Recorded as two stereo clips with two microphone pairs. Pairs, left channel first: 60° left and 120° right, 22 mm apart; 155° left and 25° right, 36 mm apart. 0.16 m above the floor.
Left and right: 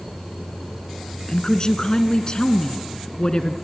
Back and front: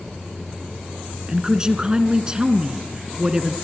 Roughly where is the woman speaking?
Ahead left.